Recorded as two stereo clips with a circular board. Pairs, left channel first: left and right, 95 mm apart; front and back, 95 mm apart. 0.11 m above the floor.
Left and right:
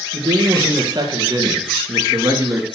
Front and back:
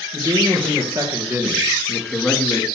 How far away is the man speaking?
About 3.5 m.